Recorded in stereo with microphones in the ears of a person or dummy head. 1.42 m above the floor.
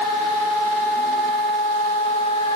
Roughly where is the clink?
No clink in this recording.